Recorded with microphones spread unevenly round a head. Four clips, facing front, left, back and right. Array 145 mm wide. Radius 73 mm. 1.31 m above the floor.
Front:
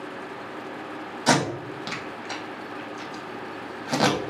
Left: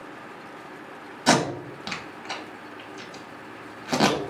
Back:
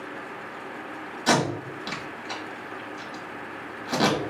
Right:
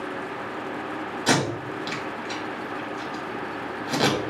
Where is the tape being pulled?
60° left, 1.4 m.